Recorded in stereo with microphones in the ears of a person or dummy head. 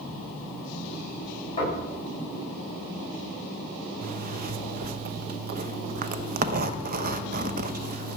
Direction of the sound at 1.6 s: 30° left (ahead or behind).